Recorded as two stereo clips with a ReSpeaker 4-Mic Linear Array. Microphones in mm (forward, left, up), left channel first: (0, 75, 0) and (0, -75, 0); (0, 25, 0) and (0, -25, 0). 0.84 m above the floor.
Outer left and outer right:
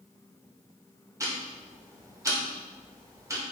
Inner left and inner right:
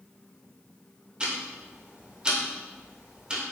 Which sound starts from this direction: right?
Ticking, at 1.2 s.